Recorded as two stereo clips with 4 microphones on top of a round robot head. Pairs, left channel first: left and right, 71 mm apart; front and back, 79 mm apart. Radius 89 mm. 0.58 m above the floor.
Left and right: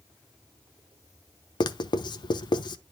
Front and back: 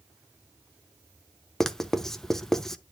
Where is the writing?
85° left, 0.8 m.